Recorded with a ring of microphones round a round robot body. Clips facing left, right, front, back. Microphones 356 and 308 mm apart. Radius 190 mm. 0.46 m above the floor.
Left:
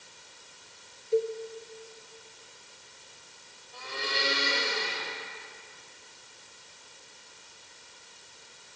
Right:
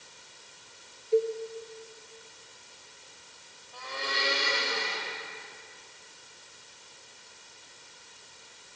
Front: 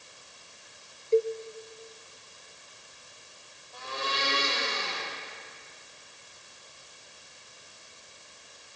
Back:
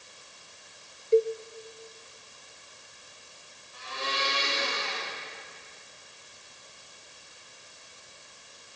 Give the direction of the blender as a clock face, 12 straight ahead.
11 o'clock.